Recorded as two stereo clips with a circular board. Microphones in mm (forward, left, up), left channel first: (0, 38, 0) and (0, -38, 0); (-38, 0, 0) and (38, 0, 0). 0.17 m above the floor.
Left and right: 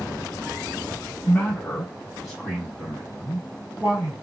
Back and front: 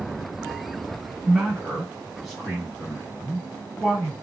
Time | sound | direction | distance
1.2 | a man speaking | 80° left | 1.6 m